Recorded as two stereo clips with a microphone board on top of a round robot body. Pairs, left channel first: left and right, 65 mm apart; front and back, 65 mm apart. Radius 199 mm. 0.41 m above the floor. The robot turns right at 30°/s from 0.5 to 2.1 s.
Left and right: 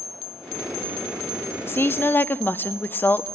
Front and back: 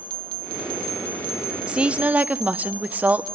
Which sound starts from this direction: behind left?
A woman speaking, at 1.7 s.